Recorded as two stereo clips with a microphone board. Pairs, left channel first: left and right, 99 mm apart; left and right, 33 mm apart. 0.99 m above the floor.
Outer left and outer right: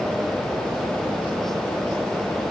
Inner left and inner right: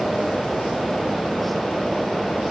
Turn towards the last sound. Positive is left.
No sound to turn to.